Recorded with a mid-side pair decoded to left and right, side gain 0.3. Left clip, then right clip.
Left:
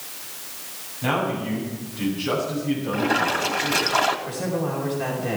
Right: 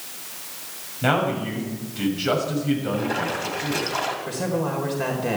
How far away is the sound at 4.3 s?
About 4.5 m.